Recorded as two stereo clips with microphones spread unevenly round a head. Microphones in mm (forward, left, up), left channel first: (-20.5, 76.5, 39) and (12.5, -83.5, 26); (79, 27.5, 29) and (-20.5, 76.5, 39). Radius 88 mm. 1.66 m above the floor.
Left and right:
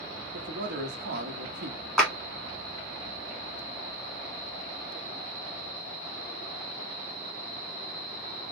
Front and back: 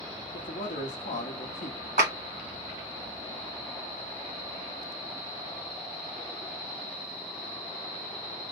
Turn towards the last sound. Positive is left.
turn(degrees=-175)